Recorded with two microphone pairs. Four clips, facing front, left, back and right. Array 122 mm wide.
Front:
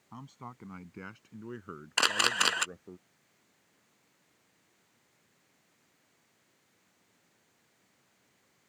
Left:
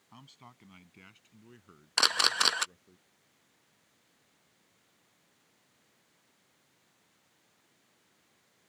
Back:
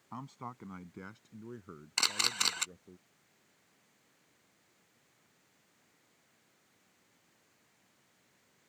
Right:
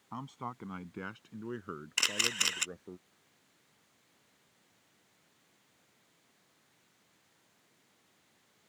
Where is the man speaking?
115° right; by 3.0 s 55° right.